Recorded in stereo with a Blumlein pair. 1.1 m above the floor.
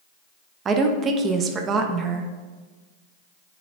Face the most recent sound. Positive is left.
turn(degrees=-25)